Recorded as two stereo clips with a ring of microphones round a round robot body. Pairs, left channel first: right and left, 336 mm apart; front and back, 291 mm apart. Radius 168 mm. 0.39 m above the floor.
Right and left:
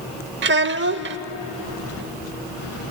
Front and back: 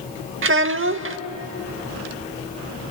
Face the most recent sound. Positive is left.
turn(degrees=140)